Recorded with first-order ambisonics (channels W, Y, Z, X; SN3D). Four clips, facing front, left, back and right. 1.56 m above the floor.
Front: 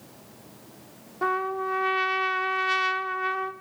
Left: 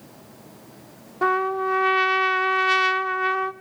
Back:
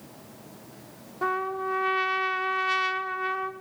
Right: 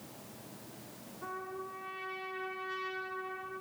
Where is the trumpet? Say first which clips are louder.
Left 20 dB, front 1 dB; 85° left, 1.0 m.